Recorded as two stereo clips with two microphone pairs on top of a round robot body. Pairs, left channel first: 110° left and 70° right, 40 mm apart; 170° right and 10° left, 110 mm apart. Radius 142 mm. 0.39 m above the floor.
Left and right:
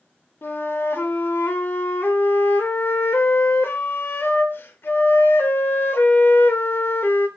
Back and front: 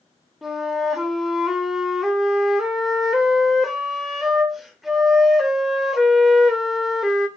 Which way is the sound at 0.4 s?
100° left.